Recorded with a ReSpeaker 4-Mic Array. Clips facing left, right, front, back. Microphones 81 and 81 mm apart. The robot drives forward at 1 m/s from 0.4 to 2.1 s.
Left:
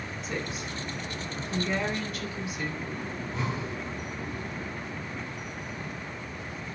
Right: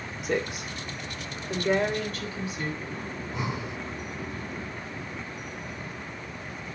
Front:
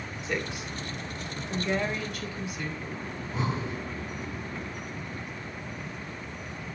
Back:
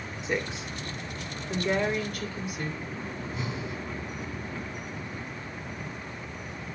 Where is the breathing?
10° right, 0.6 m.